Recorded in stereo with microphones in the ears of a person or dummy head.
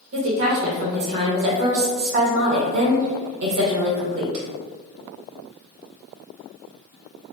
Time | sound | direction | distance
0.1 | a woman speaking | 65° right (ahead or behind) | 1.5 m